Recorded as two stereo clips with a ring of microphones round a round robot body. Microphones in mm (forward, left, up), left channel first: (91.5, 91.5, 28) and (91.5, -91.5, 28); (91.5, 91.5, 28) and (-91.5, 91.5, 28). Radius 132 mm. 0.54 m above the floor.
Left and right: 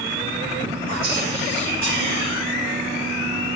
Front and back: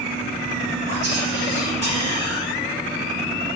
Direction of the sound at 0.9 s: 125° right.